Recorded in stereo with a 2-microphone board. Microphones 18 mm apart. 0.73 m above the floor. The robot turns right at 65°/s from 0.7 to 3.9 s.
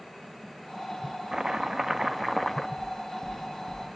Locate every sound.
1.3 s chopping: 65° right, 0.9 m; by 2.7 s 25° left, 0.9 m
2.8 s knocking: 5° right (ahead or behind), 7.5 m; by 4.0 s 80° right, 7.5 m